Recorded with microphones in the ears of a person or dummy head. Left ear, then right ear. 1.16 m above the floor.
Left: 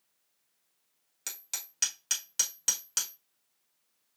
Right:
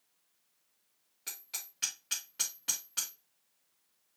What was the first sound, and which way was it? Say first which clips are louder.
Hammering: left 4 dB; 80° left.